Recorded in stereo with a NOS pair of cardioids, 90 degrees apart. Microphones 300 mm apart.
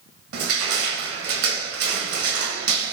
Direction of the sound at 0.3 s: 55° right.